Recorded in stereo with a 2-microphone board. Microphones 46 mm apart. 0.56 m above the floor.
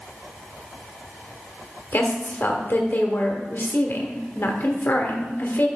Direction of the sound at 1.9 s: 50° left (ahead or behind).